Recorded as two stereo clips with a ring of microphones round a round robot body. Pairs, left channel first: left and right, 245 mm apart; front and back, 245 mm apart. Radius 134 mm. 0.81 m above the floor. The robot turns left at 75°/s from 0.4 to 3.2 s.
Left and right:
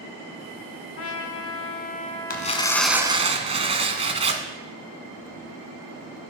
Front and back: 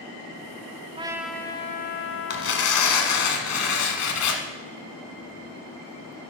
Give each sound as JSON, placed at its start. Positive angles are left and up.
{"t": 1.0, "sound": "a trumpet", "azimuth_deg": 115, "distance_m": 0.9}
{"t": 2.3, "sound": "tearing paper", "azimuth_deg": 40, "distance_m": 1.3}